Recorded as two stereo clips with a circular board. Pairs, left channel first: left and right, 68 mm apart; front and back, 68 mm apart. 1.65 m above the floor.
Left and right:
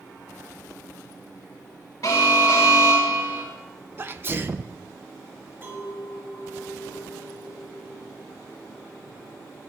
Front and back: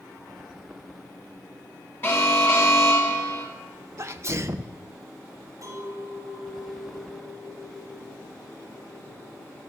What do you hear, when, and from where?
2.0 s an alarm: 55° left, 4.5 m
4.0 s a sneeze: 140° right, 1.0 m
5.6 s a clink: 145° right, 7.5 m